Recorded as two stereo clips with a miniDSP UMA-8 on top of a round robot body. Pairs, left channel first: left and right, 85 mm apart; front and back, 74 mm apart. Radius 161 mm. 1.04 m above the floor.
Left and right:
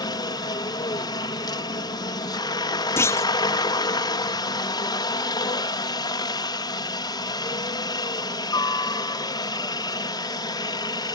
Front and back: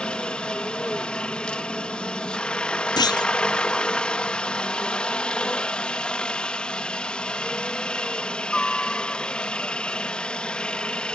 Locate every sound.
0.0 s a helicopter: 75° left
3.0 s a clunk: 30° left